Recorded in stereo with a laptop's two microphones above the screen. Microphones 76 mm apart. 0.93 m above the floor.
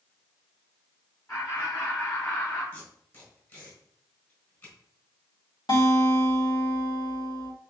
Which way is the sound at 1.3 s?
40° left (ahead or behind).